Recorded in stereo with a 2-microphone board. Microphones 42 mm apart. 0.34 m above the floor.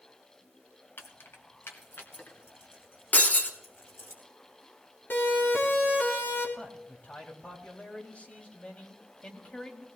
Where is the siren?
55° left (ahead or behind), 4.5 m; by 6.5 s 60° left (ahead or behind), 4 m.